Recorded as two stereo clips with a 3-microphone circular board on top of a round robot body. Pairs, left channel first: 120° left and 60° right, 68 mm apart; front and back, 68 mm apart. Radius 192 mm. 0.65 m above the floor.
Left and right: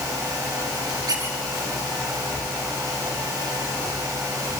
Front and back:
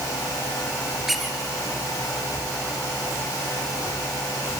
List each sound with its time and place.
1.1 s a squeak: 90° right, 3 m